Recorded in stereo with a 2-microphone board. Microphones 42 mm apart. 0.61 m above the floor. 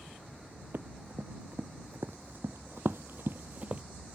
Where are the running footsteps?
60° right (ahead or behind); by 3.8 s 30° right (ahead or behind).